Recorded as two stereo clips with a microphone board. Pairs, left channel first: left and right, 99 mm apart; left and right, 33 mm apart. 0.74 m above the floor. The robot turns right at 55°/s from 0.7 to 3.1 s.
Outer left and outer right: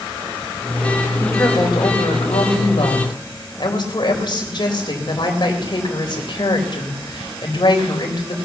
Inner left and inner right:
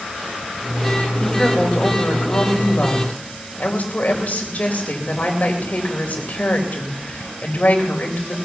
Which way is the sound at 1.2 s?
25° left.